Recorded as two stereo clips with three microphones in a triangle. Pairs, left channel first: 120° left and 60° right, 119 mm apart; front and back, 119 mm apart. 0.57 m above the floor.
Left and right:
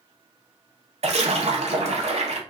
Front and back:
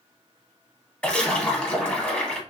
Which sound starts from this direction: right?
A splash, at 1.0 s.